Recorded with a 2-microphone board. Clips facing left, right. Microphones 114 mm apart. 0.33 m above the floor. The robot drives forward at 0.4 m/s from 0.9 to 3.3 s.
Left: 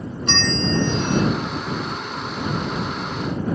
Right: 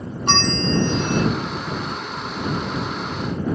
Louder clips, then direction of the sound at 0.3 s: Right 2 dB; 55° right (ahead or behind).